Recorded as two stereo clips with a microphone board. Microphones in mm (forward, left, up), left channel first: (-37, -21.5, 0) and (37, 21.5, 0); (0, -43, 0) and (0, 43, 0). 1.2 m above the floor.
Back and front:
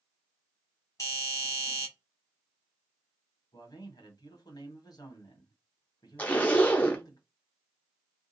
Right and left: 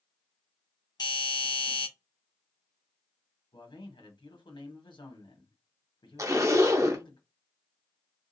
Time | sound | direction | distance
1.0 | a doorbell | 105° right | 1.5 m
3.5 | a man speaking | 110° right | 1.3 m
6.2 | a zipper | 140° left | 0.7 m